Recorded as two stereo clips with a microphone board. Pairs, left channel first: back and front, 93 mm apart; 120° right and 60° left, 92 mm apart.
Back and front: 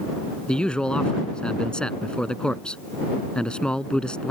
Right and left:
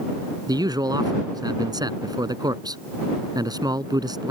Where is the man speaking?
100° left.